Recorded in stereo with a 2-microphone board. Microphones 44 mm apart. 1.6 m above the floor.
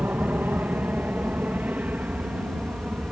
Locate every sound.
0.0 s an aircraft: 45° right (ahead or behind); by 3.1 s 35° right (ahead or behind)